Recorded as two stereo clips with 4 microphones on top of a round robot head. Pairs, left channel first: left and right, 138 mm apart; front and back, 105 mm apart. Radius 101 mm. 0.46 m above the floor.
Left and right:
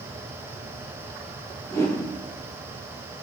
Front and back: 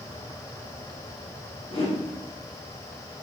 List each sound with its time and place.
1.7 s a whoosh: 25° left, 2.5 m